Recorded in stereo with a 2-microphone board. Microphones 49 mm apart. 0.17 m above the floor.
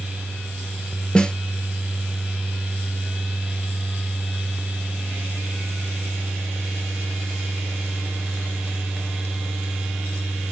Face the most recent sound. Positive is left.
turn(degrees=20)  # may be behind; listen again after turning